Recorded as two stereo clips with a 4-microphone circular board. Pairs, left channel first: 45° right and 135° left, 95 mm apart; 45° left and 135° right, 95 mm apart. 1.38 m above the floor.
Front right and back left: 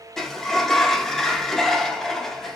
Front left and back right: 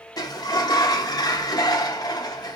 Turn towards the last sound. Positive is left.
turn(degrees=40)